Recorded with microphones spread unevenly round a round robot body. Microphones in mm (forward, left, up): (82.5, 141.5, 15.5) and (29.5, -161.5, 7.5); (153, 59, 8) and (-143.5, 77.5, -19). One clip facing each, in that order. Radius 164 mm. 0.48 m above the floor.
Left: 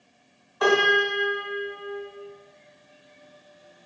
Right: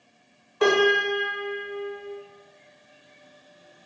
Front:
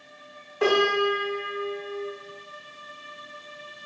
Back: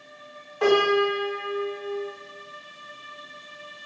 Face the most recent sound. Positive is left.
turn(degrees=-70)